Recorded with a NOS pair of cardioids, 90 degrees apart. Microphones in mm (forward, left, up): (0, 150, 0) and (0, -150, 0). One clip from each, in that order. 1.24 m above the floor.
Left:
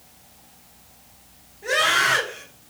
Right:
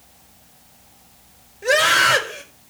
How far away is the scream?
About 8.5 m.